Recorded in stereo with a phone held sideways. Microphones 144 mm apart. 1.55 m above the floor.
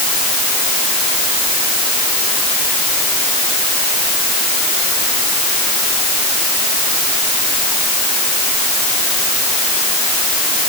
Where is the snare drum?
I don't hear a snare drum.